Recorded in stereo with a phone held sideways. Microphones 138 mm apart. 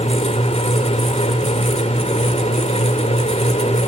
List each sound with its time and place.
0.0 s a fan: 50° left (ahead or behind), 2 m